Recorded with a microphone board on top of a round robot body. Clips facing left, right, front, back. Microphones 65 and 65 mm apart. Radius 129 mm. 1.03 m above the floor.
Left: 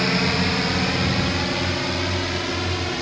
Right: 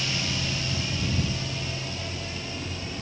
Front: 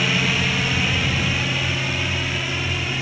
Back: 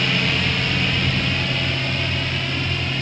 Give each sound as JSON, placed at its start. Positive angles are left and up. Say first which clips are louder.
{"t": 0.0, "sound": "a drone", "louder": "left 10 dB, even", "azimuth_deg": 85}